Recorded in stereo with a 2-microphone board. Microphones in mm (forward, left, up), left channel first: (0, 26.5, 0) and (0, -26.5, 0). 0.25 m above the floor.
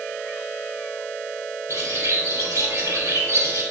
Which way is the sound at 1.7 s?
75° right (ahead or behind).